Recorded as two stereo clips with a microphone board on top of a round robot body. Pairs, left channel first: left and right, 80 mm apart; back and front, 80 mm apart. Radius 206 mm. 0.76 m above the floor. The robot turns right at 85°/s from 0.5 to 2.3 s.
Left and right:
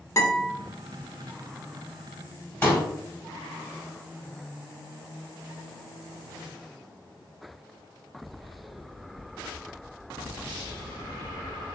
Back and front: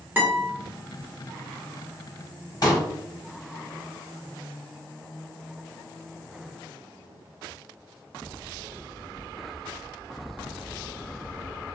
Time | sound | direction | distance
0.2 | a guitar | 60° left | 1.3 m
2.6 | a pop | 150° left | 1.9 m